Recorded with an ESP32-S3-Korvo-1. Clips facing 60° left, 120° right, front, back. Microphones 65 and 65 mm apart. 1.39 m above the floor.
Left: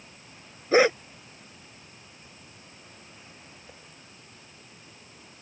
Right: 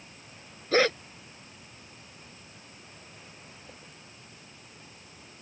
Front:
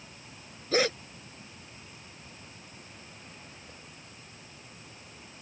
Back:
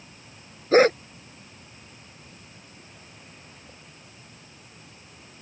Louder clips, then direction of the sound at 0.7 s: Left 4 dB, back 10 dB; 130° left.